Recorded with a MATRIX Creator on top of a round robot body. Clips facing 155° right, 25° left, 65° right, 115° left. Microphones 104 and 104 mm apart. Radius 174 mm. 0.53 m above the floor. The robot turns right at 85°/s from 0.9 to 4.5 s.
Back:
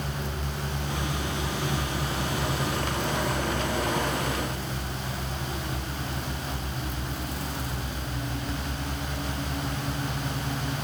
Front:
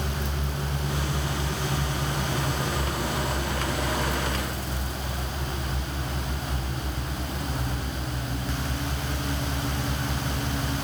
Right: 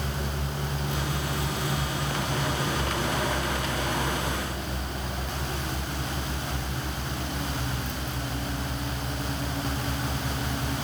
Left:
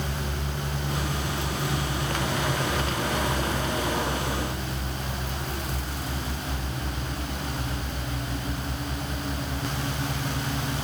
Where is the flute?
No flute in this recording.